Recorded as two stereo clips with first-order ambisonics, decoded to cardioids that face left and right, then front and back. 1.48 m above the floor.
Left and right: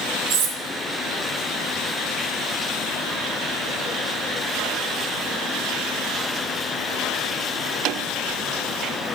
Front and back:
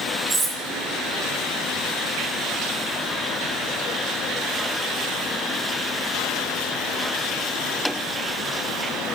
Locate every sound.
0.3 s cutlery clinking: 110° right, 1.3 m